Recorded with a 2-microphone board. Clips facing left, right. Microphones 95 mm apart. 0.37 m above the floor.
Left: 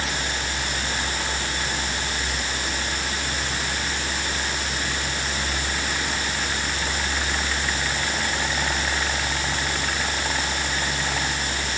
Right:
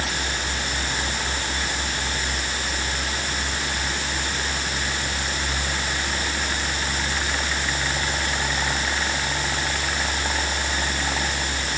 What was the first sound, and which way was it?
Only background noise.